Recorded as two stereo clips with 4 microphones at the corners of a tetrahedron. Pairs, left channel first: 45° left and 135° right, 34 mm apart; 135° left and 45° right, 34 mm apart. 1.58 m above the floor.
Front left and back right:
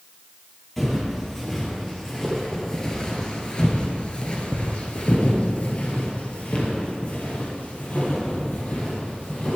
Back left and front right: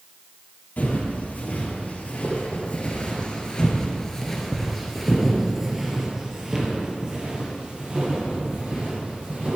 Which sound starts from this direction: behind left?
Footsteps, at 0.8 s.